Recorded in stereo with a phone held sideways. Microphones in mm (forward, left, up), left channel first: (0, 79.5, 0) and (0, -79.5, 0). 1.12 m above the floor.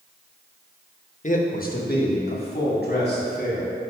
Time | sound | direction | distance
1.2 | a man speaking | 50° left (ahead or behind) | 0.9 m